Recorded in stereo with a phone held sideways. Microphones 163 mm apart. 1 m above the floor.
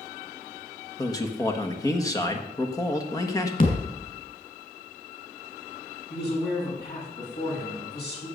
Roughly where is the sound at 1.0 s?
Left.